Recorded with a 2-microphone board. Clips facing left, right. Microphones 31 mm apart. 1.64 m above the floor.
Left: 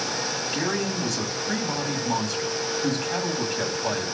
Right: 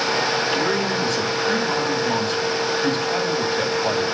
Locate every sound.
0.5 s a man speaking: 80° right, 9 m